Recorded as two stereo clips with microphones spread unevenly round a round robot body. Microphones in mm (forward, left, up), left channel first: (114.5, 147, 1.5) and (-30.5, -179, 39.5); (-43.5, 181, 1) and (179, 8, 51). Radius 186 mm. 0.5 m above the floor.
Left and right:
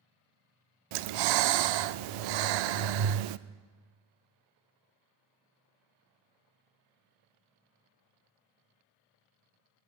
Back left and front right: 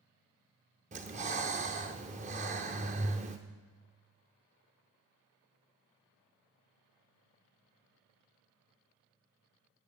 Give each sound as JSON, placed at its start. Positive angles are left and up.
{"t": 0.9, "sound": "breathing", "azimuth_deg": -110, "distance_m": 0.6}